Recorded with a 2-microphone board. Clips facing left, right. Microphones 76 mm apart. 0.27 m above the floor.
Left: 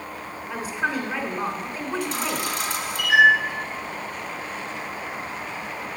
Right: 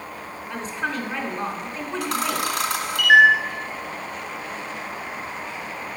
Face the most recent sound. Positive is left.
turn(degrees=-65)  # may be behind; listen again after turning